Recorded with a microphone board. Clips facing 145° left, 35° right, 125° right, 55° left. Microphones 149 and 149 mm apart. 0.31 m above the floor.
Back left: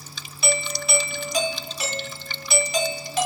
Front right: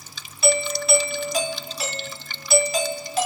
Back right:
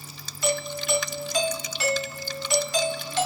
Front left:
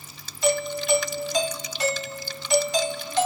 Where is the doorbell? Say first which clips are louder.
Front right 5 dB, front left 4 dB; 50° left, 1.5 m.